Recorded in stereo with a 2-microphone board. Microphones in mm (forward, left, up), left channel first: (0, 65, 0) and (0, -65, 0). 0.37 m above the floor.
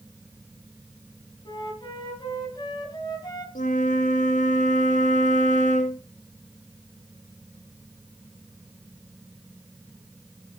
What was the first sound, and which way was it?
A flute, 35° left (ahead or behind).